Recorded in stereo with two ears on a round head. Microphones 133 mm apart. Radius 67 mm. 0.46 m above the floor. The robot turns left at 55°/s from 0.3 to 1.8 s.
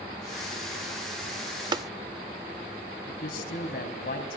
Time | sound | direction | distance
1.7 | tapping | 30° right (ahead or behind) | 0.5 m
3.1 | a man speaking | 70° left (ahead or behind) | 4 m